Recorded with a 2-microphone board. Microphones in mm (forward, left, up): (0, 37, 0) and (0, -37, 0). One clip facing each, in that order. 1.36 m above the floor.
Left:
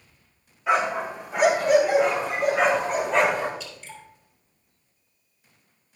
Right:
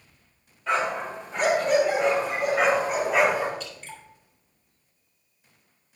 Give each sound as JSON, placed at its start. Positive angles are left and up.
{"t": 0.7, "sound": "a dog barking", "side_deg": 10, "distance_m": 4.0}
{"t": 3.6, "sound": "dripping", "side_deg": -50, "distance_m": 3.5}